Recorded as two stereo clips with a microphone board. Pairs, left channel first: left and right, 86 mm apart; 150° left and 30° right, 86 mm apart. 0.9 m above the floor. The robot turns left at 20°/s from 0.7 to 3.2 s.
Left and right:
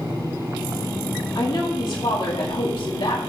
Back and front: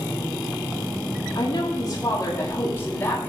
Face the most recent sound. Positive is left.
turn(degrees=85)